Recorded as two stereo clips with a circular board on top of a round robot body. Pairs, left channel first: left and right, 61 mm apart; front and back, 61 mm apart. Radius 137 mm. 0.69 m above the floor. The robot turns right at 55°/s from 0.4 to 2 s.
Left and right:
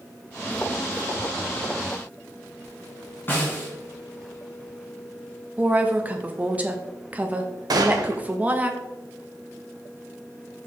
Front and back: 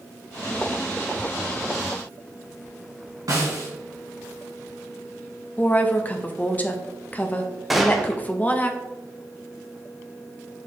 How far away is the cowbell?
I don't hear a cowbell.